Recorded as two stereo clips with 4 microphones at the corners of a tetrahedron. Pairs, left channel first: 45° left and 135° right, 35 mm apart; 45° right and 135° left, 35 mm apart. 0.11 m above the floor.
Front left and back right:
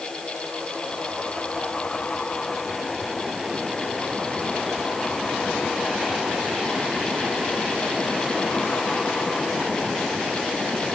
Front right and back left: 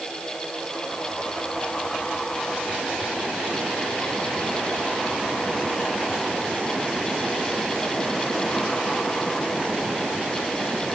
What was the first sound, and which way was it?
Only background noise.